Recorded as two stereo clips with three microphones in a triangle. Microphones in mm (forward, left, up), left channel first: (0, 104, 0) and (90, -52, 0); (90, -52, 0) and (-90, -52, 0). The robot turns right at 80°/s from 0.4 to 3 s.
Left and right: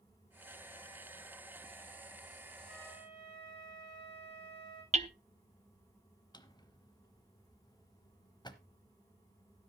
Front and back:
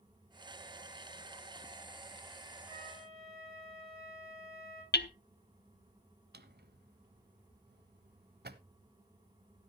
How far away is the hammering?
About 0.8 m.